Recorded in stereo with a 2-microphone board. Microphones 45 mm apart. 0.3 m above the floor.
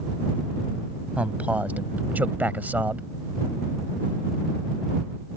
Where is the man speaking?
30° right (ahead or behind); by 3.1 s 40° right (ahead or behind).